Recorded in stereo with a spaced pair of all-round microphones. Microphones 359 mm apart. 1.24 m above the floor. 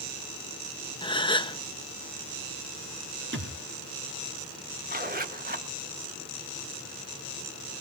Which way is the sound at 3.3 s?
35° right (ahead or behind).